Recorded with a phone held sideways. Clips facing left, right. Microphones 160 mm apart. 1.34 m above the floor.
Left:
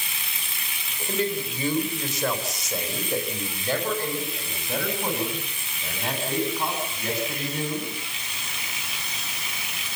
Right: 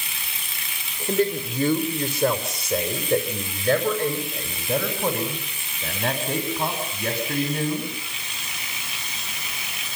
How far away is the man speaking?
About 3.5 m.